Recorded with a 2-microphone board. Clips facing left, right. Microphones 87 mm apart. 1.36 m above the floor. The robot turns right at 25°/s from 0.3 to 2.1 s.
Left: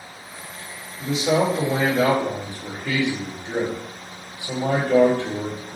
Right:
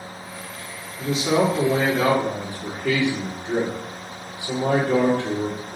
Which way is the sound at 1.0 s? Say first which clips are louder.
Even; 65° right (ahead or behind).